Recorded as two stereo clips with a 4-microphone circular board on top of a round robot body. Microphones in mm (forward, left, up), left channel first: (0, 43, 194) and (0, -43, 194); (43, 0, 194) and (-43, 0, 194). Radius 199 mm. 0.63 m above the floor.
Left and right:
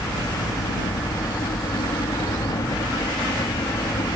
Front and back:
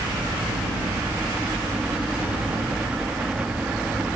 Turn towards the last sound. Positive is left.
turn(degrees=110)